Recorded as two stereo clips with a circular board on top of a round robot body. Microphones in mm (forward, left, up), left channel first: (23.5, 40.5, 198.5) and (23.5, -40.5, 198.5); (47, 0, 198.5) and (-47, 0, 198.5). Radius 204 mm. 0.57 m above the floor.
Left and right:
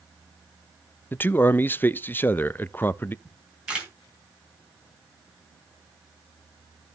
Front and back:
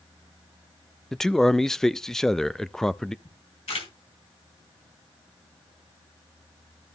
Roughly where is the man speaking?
Left.